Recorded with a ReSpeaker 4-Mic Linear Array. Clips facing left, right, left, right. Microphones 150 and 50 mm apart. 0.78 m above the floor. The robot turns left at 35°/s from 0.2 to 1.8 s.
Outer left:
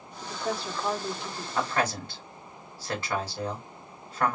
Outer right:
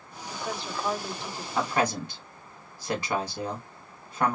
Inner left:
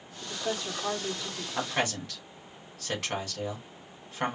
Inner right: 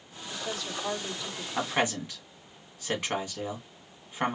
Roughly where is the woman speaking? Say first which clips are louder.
Outer left 3 dB, inner left 3 dB; ahead left.